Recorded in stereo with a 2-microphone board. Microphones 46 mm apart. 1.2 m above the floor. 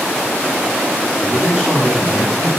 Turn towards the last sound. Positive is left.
turn(degrees=-15)  # may be behind; listen again after turning